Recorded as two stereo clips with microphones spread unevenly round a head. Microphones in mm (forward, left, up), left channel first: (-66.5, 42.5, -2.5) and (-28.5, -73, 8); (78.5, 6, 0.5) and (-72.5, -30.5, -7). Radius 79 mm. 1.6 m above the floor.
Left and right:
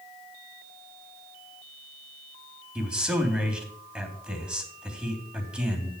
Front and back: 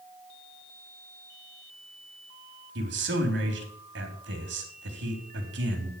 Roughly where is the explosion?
I don't hear an explosion.